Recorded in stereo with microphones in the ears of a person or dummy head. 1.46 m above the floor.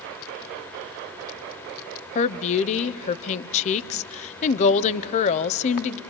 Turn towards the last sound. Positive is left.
turn(degrees=40)  # may be behind; listen again after turning